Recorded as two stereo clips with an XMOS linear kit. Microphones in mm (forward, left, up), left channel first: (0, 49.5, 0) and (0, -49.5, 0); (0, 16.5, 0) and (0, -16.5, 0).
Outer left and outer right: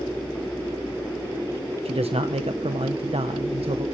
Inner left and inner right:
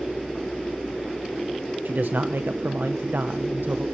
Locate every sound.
1.9 s a man speaking: 75° right (ahead or behind), 0.9 m